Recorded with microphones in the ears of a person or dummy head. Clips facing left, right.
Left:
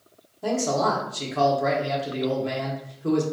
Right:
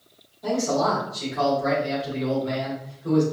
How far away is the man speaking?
About 1.3 m.